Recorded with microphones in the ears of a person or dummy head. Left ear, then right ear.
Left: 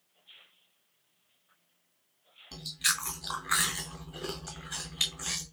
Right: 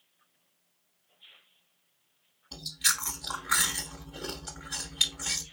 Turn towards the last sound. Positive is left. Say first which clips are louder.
# right 1 dB
turn(degrees=0)  # may be behind; listen again after turning